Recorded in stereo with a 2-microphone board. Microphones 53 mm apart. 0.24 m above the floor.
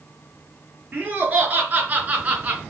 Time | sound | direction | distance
0.9 | laughter | 30° right (ahead or behind) | 4 m